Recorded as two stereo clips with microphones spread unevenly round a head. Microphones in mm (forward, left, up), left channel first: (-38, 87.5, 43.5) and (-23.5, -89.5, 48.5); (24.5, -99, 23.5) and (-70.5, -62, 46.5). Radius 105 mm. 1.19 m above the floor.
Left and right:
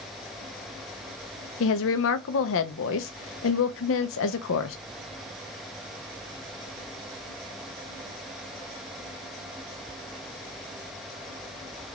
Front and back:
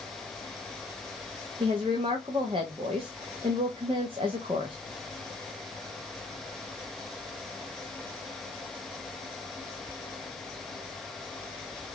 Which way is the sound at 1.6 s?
95° left.